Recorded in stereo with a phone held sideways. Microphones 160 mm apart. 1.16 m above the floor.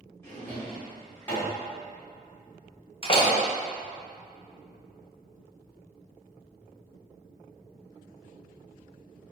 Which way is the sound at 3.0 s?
35° left (ahead or behind).